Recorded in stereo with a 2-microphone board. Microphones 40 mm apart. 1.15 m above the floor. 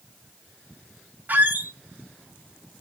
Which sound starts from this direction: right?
A squeak, at 1.3 s.